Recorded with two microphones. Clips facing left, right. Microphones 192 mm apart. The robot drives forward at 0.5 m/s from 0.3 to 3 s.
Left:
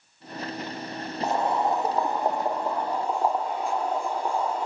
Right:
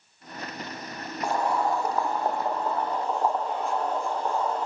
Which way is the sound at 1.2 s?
20° left (ahead or behind).